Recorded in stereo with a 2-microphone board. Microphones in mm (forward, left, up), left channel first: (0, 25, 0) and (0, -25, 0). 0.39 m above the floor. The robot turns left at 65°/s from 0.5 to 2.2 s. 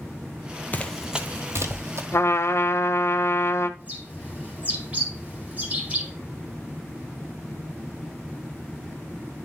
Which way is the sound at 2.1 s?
60° left (ahead or behind).